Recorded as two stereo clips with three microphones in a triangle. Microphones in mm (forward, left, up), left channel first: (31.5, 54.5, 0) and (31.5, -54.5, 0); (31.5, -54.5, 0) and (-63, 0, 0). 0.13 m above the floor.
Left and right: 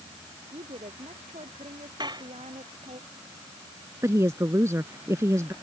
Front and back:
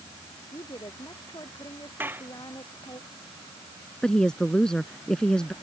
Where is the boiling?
No boiling in this recording.